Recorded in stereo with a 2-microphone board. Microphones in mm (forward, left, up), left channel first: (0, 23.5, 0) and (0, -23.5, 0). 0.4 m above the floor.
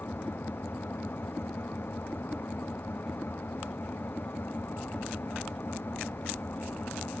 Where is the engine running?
50° left (ahead or behind).